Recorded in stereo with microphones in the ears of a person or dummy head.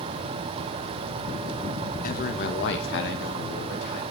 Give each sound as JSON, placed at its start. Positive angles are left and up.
{"t": 2.0, "sound": "a man speaking", "side_deg": 50, "distance_m": 1.5}